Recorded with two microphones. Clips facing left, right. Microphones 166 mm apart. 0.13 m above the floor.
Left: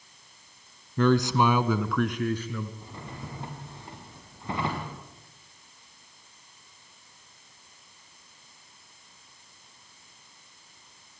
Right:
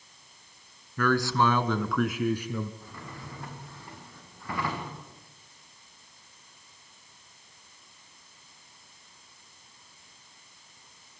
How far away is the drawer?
About 6.5 m.